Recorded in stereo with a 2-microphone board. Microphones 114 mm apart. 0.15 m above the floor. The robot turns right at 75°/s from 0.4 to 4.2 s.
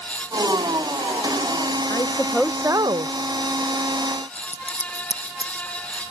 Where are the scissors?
80° left.